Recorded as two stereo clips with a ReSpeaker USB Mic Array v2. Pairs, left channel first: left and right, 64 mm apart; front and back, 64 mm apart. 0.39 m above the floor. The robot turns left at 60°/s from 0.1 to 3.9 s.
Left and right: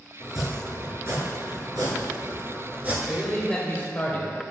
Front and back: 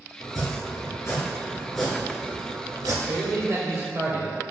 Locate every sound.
0.2 s chopping: 10° left, 1.6 m; by 3.0 s 155° right, 1.6 m
3.1 s a man speaking: 170° right, 1.2 m; by 4.4 s 140° left, 1.2 m